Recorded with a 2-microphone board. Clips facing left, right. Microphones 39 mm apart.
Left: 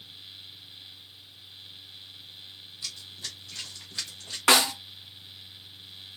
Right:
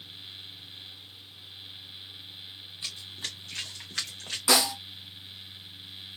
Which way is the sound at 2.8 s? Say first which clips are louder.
Right 2 dB; 30° right (ahead or behind).